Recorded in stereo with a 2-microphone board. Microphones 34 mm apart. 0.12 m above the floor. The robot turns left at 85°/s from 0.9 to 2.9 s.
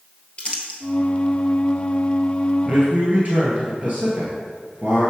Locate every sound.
0.4 s crumpling: 30° left (ahead or behind), 1.4 m
2.6 s a man speaking: 35° right (ahead or behind), 1.9 m; by 5.1 s 50° right (ahead or behind), 1.9 m